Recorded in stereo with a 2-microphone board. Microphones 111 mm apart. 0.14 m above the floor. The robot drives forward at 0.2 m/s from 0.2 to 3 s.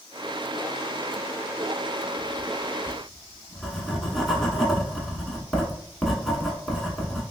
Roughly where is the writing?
Centre.